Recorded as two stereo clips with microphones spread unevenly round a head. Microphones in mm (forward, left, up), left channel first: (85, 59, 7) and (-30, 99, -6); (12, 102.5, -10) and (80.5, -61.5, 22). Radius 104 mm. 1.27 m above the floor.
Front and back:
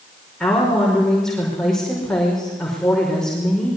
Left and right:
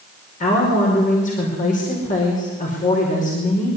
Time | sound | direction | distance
0.4 | a woman speaking | 65° left | 5 m